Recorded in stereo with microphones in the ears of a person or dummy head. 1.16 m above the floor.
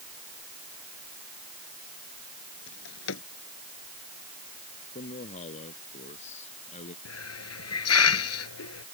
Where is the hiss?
90° left.